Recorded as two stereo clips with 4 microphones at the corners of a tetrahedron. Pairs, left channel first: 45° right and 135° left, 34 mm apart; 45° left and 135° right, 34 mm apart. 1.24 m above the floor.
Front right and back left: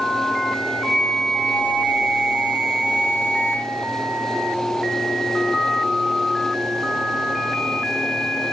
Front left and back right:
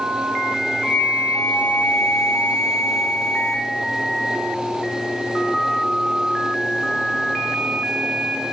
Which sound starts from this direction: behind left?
A flute, at 0.8 s.